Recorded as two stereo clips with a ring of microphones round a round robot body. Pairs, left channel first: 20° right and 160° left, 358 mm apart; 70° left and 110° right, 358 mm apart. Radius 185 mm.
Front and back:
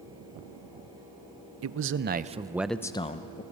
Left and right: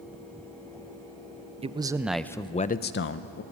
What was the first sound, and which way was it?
A man speaking, straight behind.